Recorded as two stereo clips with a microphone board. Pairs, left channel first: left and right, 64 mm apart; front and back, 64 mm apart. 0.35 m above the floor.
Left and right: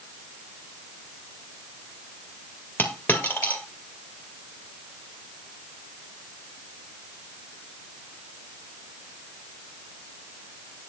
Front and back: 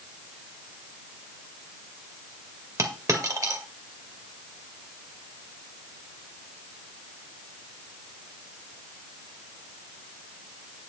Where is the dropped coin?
155° left, 2 m.